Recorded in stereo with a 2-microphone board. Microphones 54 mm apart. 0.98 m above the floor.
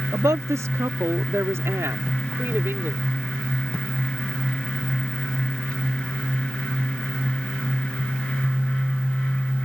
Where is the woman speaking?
75° right (ahead or behind); by 3.0 s 45° right (ahead or behind).